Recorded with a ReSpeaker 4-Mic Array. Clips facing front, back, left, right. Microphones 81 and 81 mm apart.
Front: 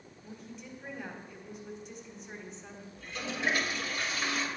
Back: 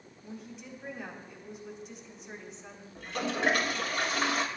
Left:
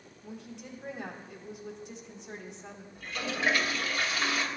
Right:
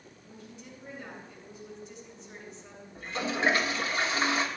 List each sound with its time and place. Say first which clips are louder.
0.2 s a woman speaking: back 2 dB, left 5 dB; 90° left, 4 m
3.0 s a toilet flushing: back 6 dB, right 4 dB; 150° right, 1.6 m